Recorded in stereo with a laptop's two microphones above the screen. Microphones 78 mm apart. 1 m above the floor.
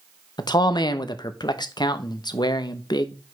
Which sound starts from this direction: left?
A man speaking, at 0.4 s.